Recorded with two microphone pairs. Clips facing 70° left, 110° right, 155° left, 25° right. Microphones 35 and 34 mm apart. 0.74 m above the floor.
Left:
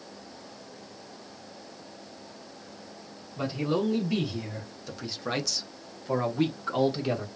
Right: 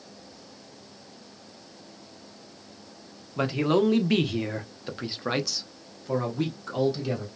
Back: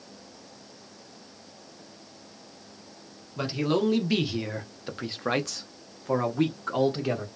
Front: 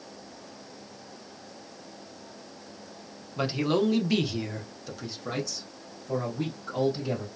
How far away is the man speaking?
About 1.2 m.